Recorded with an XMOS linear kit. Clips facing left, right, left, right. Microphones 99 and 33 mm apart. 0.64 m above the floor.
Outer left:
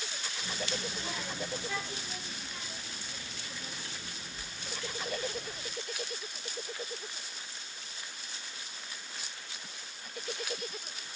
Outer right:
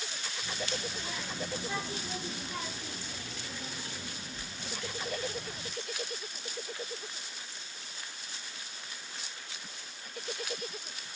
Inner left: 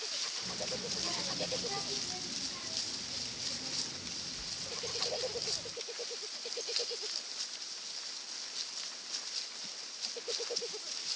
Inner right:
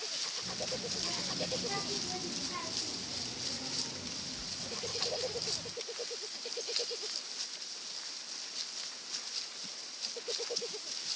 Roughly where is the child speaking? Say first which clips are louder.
Even, inner right 1 dB; left.